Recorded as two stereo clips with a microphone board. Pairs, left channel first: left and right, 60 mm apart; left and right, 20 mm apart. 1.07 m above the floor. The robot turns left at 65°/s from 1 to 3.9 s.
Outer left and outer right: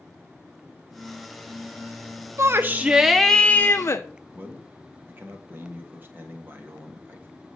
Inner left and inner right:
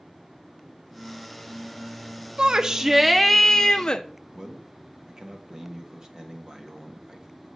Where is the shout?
130° right, 0.6 m; by 4.0 s 130° left, 0.6 m.